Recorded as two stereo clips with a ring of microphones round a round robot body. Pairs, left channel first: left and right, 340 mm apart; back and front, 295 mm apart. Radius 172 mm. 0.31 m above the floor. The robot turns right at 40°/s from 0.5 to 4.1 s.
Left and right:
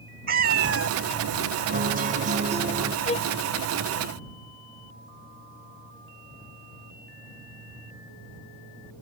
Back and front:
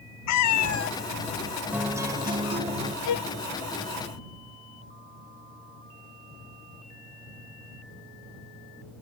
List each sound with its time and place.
0.3 s a cat meowing: 150° right; by 1.0 s 135° right
1.7 s a guitar: 80° right; by 3.0 s 30° right
3.0 s a violin: 160° left; by 3.3 s 175° left